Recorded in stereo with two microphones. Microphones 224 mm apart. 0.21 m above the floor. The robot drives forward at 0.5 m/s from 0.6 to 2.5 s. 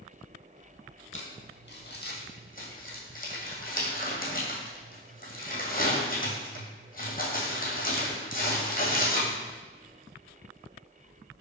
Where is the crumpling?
70° left (ahead or behind), 0.9 m; by 9.3 s 40° left (ahead or behind), 1.3 m.